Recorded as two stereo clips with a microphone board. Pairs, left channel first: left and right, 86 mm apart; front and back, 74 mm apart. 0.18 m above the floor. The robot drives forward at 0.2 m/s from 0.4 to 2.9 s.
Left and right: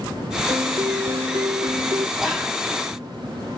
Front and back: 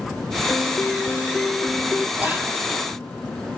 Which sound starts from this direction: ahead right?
A piano, at 0.5 s.